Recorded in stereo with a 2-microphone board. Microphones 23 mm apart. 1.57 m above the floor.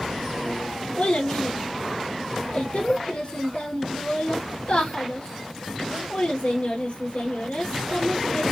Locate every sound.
1.0 s a child speaking: 70° left (ahead or behind), 2.5 m